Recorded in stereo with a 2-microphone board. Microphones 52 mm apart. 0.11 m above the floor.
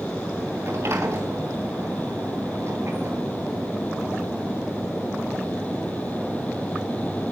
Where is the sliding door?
55° right (ahead or behind), 2.5 m.